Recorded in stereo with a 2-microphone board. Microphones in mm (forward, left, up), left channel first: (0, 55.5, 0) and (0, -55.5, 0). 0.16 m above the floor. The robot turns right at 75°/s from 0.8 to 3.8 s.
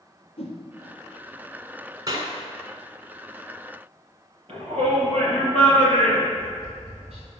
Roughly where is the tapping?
Right.